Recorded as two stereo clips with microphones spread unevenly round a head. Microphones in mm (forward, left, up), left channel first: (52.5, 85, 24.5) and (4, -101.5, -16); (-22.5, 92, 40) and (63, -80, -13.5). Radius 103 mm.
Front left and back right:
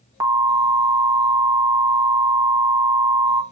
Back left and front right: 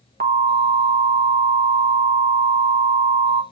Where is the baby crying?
I don't hear a baby crying.